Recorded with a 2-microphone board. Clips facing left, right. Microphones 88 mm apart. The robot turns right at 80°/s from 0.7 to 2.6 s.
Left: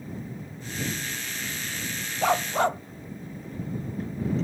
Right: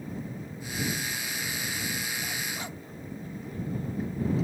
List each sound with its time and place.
2.2 s a dog barking: 90° left; by 2.8 s 120° left